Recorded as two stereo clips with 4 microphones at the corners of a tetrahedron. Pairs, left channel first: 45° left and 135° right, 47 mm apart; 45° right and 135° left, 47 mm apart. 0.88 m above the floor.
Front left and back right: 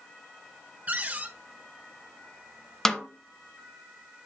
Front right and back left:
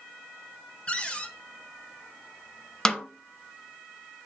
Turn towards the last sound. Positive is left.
turn(degrees=-20)